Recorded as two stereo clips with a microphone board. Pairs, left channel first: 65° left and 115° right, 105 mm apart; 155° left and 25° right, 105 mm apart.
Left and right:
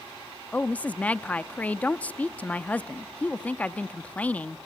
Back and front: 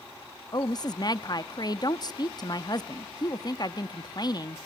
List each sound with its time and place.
0.5 s a woman speaking: 140° left, 0.7 m